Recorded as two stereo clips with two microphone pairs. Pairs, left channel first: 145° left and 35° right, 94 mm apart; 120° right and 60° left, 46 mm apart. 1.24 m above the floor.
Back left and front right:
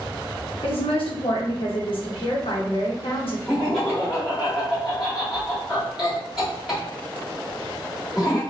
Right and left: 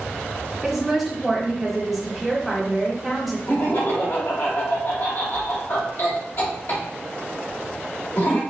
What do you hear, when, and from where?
0.6 s a woman speaking: 150° left, 0.7 m
3.5 s laughter: 125° right, 1.6 m